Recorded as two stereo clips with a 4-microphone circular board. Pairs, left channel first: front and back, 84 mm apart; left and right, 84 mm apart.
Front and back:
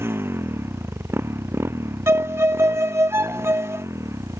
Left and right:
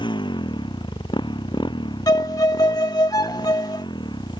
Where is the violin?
125° left.